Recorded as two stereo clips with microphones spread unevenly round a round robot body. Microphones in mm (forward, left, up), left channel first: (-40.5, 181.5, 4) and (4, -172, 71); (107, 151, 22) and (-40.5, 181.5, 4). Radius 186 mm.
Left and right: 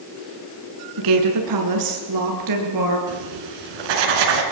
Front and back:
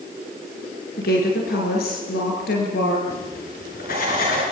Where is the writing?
70° right, 4 m.